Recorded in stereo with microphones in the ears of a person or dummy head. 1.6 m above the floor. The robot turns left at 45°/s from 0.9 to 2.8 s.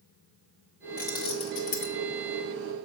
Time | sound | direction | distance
1.0 | keys jangling | 15° left (ahead or behind) | 0.8 m